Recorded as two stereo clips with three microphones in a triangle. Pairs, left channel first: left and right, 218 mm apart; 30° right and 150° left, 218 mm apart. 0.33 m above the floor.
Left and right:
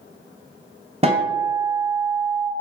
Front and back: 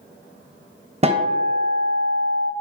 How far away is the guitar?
About 0.5 m.